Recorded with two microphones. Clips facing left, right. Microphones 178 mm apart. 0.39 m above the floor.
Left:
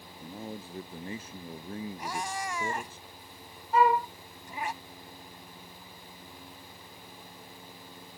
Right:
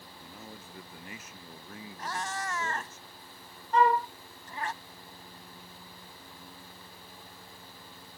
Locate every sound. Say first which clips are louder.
0.2 s a man speaking: left 9 dB; 30° left (ahead or behind)
2.0 s a cat meowing: right 3 dB; 15° left (ahead or behind)
3.7 s a flute: left 1 dB; 5° left (ahead or behind)